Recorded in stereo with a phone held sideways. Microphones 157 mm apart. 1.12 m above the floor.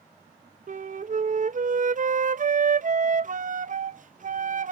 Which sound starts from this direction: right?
A flute, at 0.7 s.